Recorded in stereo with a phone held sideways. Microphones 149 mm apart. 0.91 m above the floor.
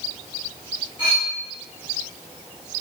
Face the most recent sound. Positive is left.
turn(degrees=40)  # may be behind; listen again after turning